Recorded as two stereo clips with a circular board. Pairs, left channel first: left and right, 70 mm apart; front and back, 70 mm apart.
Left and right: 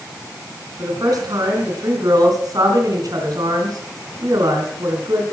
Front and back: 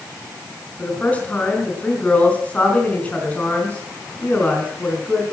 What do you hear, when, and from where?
0.8 s a woman speaking: 70° right, 4 m